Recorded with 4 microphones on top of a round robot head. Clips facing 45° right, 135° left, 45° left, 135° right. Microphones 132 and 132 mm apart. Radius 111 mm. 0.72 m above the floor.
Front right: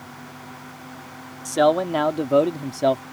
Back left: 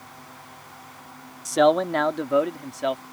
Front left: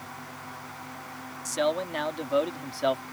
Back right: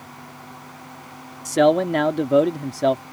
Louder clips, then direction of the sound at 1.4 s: Even, back right 11 dB; 140° right.